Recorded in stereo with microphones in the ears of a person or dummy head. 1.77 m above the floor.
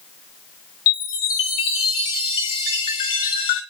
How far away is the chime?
About 1.7 m.